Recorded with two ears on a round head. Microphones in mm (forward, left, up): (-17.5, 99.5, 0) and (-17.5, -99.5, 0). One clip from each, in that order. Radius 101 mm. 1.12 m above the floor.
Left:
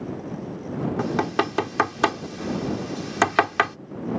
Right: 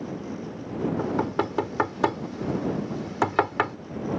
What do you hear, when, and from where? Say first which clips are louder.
1.0 s knocking: left 4 dB; 75° left (ahead or behind)